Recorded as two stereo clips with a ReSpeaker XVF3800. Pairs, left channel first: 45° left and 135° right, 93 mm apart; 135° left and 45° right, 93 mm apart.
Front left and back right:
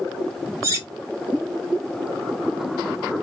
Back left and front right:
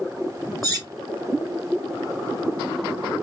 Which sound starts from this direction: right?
Cutlery clinking, at 0.6 s.